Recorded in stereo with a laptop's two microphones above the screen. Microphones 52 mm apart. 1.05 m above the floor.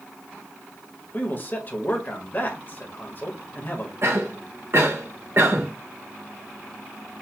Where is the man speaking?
40° left (ahead or behind), 1.4 m.